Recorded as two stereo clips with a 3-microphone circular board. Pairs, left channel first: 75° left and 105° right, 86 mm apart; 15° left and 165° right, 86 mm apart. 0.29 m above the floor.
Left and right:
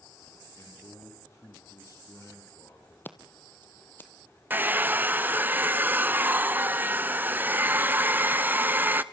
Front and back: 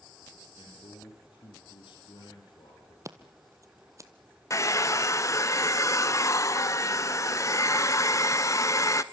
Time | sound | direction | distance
0.6 | a man speaking | 30° left | 10 m
3.0 | scissors | 140° left | 1.4 m
4.5 | a hair dryer | 35° right | 0.6 m